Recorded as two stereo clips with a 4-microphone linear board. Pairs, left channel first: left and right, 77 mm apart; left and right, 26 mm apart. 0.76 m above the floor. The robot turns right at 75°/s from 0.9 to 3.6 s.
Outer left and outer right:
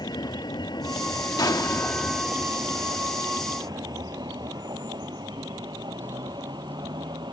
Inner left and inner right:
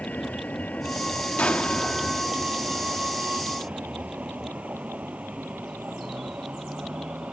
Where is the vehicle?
70° left (ahead or behind); by 7.3 s 75° right (ahead or behind).